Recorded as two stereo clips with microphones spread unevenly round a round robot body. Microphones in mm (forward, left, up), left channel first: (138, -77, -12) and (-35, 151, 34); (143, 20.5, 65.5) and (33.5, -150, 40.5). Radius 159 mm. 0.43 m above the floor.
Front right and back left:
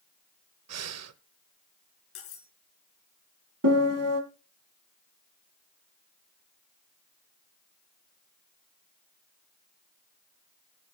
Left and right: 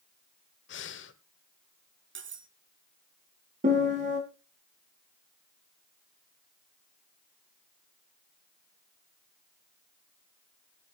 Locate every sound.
0.7 s breathing: 90° left, 1.2 m
2.1 s cutlery clinking: 100° right, 3 m
3.6 s a piano: 175° left, 2 m